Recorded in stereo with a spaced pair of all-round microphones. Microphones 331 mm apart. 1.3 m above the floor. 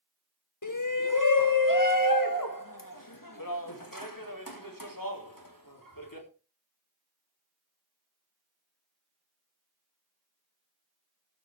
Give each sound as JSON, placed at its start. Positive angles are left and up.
{"t": 0.6, "sound": "a shout", "side_deg": 65, "distance_m": 1.1}